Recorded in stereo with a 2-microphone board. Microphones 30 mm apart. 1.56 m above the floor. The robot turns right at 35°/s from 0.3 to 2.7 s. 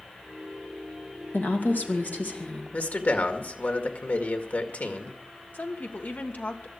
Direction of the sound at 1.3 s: 85° left.